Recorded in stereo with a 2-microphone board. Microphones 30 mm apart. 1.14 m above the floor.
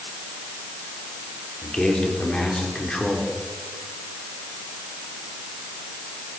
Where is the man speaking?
35° left (ahead or behind), 4 m.